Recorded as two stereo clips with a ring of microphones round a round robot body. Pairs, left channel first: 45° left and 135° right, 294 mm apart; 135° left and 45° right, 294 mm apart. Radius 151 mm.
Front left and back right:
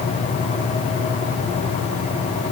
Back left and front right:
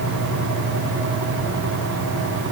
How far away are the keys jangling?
I don't hear keys jangling.